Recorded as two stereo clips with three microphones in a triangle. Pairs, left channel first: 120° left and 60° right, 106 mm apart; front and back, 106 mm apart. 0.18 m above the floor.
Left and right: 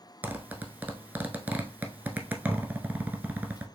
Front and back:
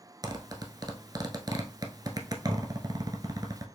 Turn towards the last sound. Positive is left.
turn(degrees=-135)